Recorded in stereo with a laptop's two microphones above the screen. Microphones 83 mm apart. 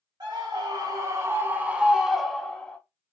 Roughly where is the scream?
Right.